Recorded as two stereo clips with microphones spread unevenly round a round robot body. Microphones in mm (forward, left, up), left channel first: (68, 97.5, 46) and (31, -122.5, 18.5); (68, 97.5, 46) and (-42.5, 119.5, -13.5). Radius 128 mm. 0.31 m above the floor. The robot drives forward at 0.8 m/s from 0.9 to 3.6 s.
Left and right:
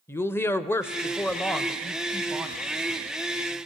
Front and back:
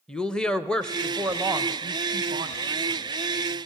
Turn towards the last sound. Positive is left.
turn(degrees=180)